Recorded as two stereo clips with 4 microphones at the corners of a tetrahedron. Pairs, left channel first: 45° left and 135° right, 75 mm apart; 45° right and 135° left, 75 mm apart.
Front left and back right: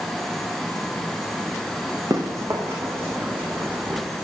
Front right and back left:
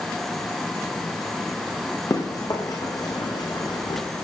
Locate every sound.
2.1 s running footsteps: 90° right, 4.5 m; by 4.0 s 60° right, 3.5 m